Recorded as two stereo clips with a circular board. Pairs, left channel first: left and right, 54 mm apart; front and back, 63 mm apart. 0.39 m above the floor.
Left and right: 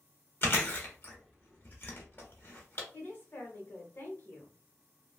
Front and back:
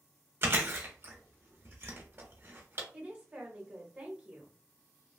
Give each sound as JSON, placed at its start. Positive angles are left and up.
{"t": 0.4, "sound": "chewing", "azimuth_deg": 135, "distance_m": 0.9}
{"t": 2.9, "sound": "a woman speaking", "azimuth_deg": 125, "distance_m": 1.2}